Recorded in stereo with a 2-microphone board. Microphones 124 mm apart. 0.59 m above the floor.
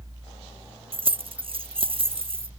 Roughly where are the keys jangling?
Right.